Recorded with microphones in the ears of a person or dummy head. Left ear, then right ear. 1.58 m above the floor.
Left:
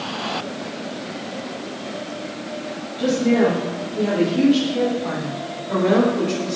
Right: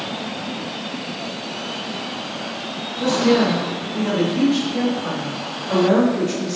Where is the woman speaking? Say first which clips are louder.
Right 1 dB; 25° right (ahead or behind), 2 m; by 6.6 s 30° right (ahead or behind), 5 m.